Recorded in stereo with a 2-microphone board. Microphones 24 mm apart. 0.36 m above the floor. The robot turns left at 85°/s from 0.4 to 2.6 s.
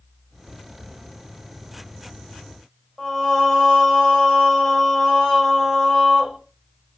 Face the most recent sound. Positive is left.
turn(degrees=15)  # may be behind; listen again after turning